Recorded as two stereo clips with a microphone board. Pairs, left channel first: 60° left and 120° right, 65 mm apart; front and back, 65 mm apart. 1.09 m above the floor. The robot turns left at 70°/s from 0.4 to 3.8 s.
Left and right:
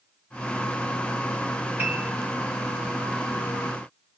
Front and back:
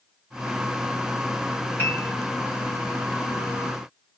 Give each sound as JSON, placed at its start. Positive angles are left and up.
{"t": 1.8, "sound": "a piano", "azimuth_deg": -55, "distance_m": 0.9}